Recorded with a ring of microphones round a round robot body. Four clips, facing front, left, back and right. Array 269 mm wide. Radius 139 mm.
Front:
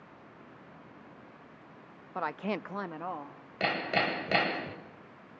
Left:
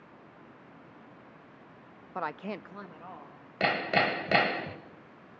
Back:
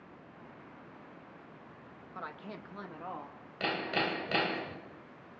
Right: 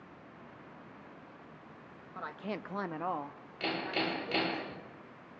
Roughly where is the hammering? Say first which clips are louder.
Left 7 dB, front 3 dB; left.